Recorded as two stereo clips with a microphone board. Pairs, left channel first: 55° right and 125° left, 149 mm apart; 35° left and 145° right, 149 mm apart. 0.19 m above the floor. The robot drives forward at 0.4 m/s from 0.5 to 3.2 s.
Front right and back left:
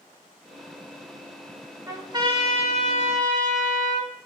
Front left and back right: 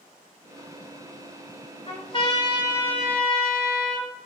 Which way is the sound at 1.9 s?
65° left.